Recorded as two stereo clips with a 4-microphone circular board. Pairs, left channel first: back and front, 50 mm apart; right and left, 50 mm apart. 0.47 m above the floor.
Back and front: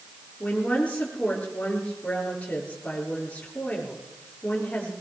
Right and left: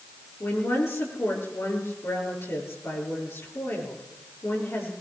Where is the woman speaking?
115° right, 7.5 m.